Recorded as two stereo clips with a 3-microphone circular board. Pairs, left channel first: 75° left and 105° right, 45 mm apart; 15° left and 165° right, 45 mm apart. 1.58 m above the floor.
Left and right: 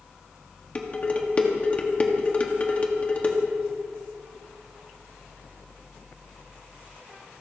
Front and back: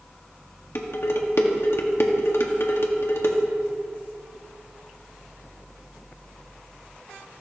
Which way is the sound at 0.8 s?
20° left.